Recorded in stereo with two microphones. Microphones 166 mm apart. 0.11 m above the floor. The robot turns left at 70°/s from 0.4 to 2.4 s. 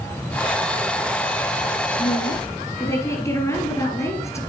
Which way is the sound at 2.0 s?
35° left (ahead or behind).